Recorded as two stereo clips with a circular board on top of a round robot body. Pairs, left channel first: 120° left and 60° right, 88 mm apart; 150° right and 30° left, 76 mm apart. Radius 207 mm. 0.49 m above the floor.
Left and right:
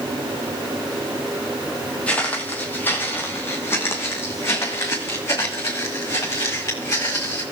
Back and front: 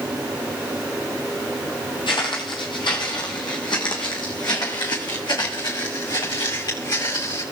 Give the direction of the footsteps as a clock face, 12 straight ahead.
5 o'clock.